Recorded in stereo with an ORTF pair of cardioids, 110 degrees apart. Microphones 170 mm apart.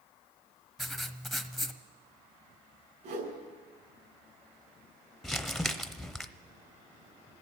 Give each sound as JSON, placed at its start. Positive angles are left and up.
{"t": 0.8, "sound": "writing", "azimuth_deg": 0, "distance_m": 0.8}
{"t": 3.0, "sound": "a whoosh", "azimuth_deg": -65, "distance_m": 6.0}
{"t": 5.2, "sound": "crumpling", "azimuth_deg": 0, "distance_m": 0.8}